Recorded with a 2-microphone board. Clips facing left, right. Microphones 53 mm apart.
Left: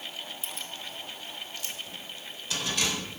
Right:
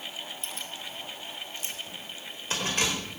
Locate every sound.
0.4 s keys jangling: 5° left (ahead or behind), 2 m; by 3.0 s 40° right (ahead or behind), 4.5 m